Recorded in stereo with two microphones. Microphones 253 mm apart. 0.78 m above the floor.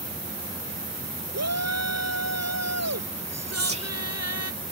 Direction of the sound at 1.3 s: 85° right.